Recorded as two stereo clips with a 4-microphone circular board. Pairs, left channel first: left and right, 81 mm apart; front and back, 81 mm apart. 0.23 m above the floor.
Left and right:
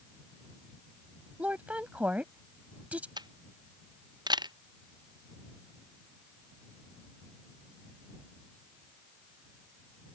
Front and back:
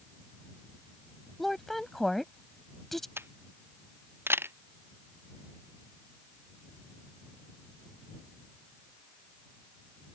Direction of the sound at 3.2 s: 120° right.